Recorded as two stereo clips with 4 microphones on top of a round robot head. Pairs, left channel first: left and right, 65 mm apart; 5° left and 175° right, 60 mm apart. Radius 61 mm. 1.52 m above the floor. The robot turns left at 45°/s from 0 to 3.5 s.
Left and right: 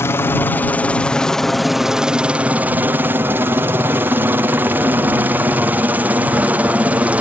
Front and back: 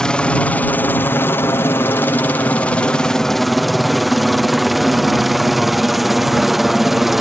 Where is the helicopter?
75° left; by 7.2 s 95° right.